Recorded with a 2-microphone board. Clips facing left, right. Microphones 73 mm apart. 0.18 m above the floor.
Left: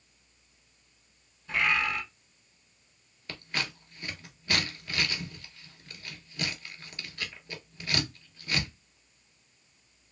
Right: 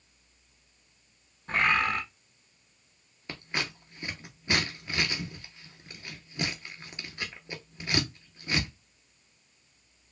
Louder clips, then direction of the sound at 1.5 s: Right 2 dB; 45° right (ahead or behind).